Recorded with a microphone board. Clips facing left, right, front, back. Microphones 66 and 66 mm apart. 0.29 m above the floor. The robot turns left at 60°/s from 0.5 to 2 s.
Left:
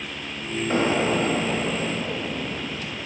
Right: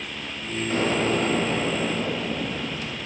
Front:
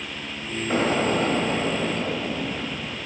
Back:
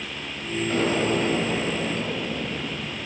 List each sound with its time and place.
0.7 s an explosion: 50° left, 0.9 m; by 3.0 s 30° right, 0.9 m